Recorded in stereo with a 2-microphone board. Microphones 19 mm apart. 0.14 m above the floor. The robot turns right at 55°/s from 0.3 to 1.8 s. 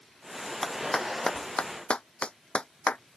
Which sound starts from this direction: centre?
A clap, at 0.6 s.